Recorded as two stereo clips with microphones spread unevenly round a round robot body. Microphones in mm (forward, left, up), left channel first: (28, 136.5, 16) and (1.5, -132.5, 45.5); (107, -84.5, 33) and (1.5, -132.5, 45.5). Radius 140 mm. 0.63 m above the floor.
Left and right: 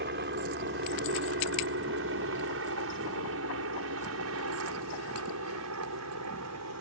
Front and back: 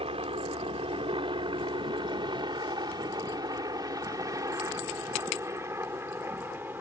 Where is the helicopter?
140° right; by 6.8 s 85° right.